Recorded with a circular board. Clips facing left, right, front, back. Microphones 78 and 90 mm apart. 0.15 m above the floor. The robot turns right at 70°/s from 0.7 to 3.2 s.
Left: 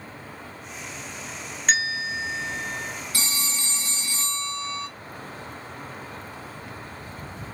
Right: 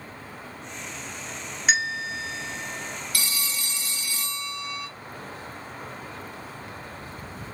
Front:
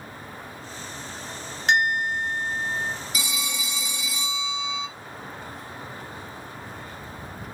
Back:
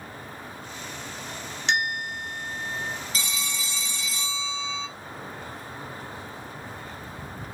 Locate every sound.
1.7 s a bell: 10° right, 1.1 m; by 3.0 s 75° left, 1.1 m
3.1 s a phone ringing: 65° left, 0.7 m; by 4.9 s 70° left, 0.7 m